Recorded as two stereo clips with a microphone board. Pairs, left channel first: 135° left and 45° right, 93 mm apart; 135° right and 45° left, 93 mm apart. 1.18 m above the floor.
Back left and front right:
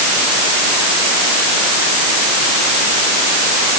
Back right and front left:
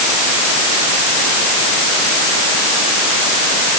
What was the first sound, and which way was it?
Only background noise.